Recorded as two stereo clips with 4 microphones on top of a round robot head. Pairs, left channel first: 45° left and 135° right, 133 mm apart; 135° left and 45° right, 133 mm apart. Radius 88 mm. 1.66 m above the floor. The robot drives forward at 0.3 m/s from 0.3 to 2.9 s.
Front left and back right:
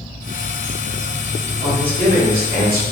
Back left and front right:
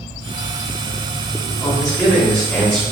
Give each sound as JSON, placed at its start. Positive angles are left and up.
{"t": 1.6, "sound": "a man speaking", "azimuth_deg": -140, "distance_m": 1.8}